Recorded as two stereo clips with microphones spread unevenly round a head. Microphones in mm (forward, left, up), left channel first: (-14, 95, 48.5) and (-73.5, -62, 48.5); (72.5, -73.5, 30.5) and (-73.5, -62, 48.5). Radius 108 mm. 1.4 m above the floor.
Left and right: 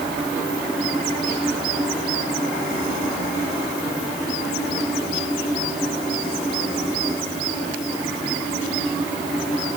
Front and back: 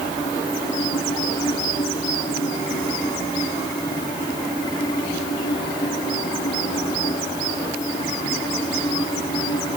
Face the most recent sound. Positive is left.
No sound to turn to.